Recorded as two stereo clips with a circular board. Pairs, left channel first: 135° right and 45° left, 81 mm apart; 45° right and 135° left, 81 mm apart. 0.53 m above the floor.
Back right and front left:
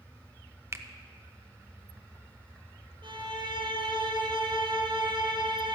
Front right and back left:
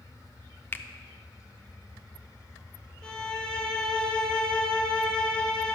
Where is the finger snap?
10° left, 0.5 m.